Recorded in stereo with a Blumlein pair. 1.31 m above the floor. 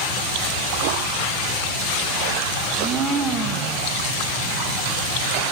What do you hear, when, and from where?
2.6 s a blender: 15° right, 0.9 m